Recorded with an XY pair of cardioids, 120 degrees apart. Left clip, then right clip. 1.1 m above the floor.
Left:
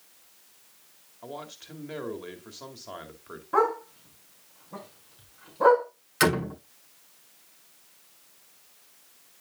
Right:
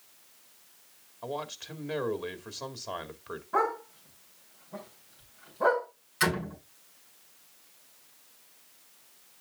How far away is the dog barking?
About 5.5 m.